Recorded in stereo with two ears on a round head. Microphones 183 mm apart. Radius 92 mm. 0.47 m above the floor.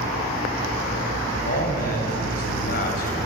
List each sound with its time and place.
1.3 s a man speaking: 50° left (ahead or behind), 3 m